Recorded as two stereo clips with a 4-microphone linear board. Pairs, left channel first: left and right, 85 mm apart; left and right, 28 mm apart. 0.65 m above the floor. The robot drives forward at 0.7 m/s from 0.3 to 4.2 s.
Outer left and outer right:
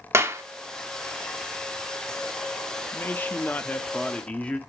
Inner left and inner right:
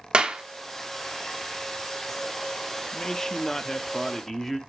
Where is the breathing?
No breathing in this recording.